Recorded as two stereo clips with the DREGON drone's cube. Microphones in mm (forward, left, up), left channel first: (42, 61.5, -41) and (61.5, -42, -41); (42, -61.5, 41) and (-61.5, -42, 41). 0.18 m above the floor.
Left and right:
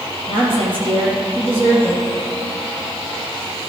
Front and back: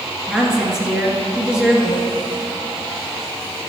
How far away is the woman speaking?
About 3 m.